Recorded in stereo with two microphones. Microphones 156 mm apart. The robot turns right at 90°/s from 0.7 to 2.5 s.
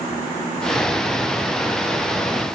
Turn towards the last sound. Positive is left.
No sound to turn to.